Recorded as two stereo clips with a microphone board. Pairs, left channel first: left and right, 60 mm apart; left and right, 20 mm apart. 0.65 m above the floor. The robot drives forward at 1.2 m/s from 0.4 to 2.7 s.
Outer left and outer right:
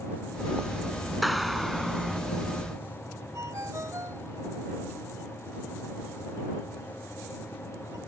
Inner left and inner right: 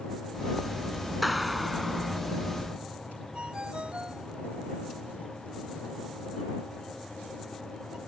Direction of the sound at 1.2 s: Centre (ahead or behind).